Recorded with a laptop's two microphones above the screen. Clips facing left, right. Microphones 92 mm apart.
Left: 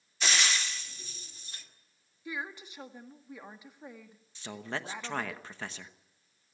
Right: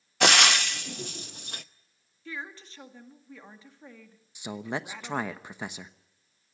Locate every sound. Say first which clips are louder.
0.2 s frying: right 9 dB; 65° right (ahead or behind), 0.7 m
2.2 s a woman speaking: left 1 dB; 15° left (ahead or behind), 1.7 m
4.3 s a man speaking: right 4 dB; 15° right (ahead or behind), 1.0 m